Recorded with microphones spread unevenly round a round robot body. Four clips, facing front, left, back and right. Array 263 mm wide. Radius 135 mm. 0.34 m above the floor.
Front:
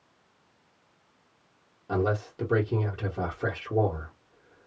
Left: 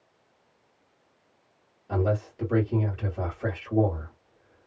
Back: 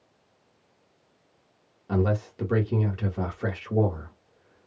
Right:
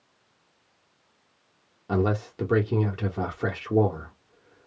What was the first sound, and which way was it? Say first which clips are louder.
A man speaking: right 2 dB, back 1 dB; 80° right.